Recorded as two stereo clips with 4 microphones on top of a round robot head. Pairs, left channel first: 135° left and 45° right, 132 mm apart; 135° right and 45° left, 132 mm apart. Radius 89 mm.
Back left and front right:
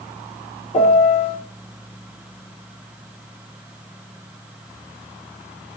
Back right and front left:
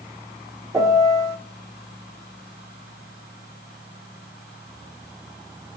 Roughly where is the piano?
Left.